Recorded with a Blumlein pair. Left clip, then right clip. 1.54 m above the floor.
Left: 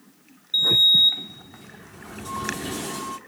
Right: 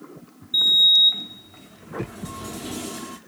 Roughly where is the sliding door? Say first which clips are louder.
Right 1 dB; ahead.